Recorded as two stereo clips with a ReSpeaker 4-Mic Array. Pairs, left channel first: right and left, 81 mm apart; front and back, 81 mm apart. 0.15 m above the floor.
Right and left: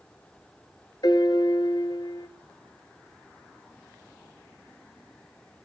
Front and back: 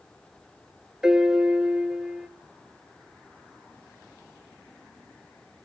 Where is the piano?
100° right, 1.1 m.